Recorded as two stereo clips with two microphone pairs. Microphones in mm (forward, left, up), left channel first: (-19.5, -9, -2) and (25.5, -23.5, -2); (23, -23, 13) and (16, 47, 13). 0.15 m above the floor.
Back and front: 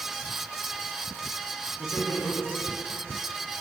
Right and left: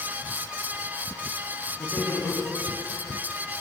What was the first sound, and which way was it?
Laughter, 155° right.